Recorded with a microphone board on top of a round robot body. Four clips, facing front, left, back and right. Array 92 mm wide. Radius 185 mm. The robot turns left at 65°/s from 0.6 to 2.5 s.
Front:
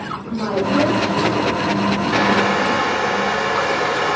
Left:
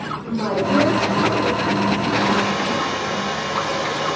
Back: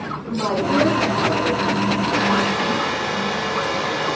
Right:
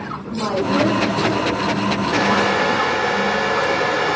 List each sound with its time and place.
0.3 s a woman speaking: 140° left, 3 m; by 1.6 s 75° left, 3 m
2.1 s a hair dryer: 15° right, 1.2 m; by 4.2 s 40° right, 1.2 m